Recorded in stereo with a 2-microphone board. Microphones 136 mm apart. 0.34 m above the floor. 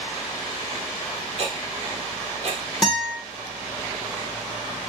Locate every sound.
1.4 s ticking: 50° right (ahead or behind), 0.8 m
2.8 s a guitar: 5° left (ahead or behind), 1.2 m